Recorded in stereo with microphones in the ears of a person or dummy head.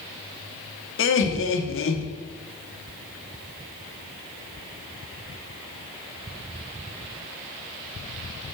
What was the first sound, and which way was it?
Laughter, 60° left (ahead or behind).